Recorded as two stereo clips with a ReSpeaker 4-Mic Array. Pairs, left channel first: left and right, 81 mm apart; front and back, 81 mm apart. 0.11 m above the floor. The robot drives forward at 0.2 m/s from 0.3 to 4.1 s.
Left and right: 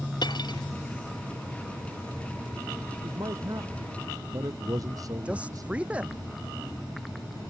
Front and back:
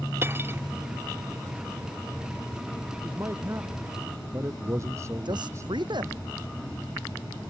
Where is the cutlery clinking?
115° left.